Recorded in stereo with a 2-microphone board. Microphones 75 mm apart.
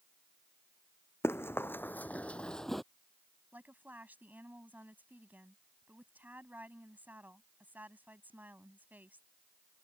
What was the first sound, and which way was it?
Running footsteps, 30° left (ahead or behind).